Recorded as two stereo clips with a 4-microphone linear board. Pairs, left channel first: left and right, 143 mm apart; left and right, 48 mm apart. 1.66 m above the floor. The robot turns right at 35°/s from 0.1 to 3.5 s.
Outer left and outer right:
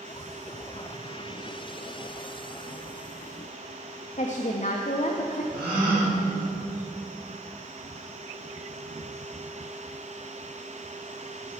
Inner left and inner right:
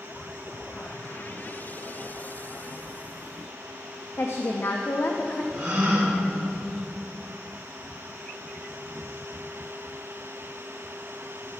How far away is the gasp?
About 2.5 m.